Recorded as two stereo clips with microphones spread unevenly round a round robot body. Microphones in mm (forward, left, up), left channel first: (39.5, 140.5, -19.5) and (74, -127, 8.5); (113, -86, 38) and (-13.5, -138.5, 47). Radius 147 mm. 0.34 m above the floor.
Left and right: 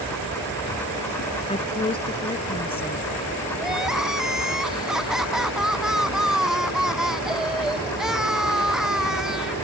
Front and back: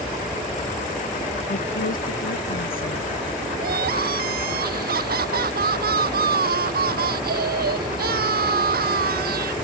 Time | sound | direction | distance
1.5 | a woman speaking | 25° left | ?
3.6 | crying | 170° right | ?